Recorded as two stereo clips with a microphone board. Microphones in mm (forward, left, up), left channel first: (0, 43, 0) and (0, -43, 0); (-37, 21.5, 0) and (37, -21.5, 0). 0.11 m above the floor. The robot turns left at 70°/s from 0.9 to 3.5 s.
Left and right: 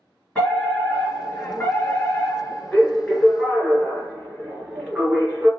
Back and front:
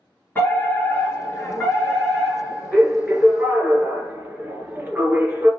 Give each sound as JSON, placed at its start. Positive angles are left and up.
{"t": 0.3, "sound": "a fire alarm", "azimuth_deg": 150, "distance_m": 2.0}